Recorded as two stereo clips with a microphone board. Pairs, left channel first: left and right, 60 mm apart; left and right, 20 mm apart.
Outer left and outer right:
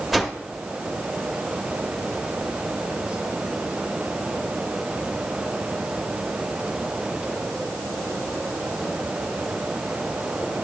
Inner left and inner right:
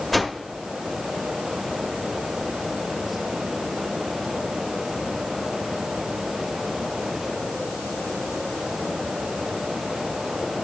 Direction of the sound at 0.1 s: Centre (ahead or behind).